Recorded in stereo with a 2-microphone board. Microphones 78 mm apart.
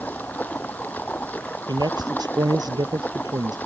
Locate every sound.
0.0 s running water: 20° left (ahead or behind)
1.7 s a man speaking: 60° right (ahead or behind)